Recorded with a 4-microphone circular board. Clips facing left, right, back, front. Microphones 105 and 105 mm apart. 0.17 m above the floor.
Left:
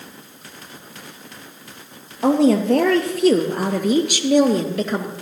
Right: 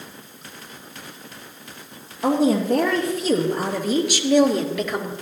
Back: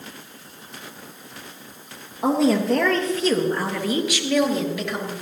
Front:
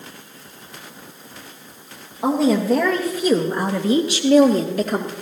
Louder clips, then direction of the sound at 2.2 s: Left 3 dB, front 1 dB; 90° left.